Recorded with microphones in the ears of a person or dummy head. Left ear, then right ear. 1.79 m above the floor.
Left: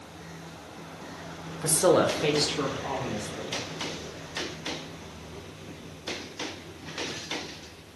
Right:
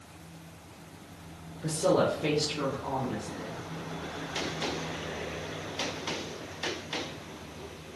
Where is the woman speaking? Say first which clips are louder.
Left 4 dB; 50° left (ahead or behind), 0.6 m; by 3.6 s 20° left (ahead or behind), 1.8 m.